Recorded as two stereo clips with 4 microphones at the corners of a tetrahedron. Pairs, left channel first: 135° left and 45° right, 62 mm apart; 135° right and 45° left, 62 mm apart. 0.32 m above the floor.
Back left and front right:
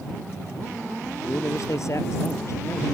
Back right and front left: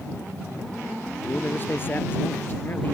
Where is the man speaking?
170° left.